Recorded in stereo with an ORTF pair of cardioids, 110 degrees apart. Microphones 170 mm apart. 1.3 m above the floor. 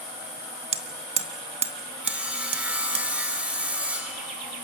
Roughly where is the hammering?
Ahead right.